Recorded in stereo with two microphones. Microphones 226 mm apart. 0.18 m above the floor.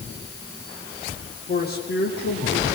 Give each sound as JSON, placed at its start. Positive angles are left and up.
{"t": 1.5, "sound": "a man speaking", "side_deg": 45, "distance_m": 7.0}